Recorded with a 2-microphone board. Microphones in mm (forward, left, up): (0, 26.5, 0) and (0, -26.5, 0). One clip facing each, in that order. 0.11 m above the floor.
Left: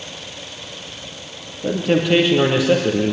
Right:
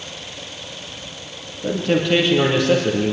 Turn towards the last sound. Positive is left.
turn(degrees=10)  # may be behind; listen again after turning